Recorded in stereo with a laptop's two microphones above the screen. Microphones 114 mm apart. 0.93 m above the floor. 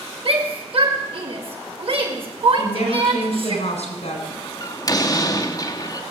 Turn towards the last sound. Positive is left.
turn(degrees=35)  # may be behind; listen again after turning